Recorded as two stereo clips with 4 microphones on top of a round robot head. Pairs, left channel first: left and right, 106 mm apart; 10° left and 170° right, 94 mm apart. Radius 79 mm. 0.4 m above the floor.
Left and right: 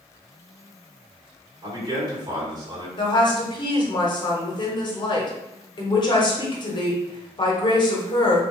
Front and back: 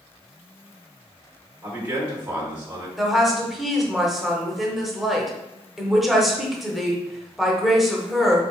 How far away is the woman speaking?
About 1.1 m.